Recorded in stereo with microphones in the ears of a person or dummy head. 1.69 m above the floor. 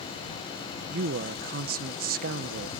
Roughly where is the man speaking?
Right.